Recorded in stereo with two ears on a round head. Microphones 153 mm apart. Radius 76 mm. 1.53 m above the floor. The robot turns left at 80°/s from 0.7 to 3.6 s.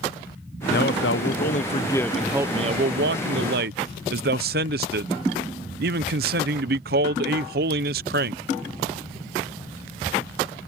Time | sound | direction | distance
0.7 | a man speaking | 120° left | ?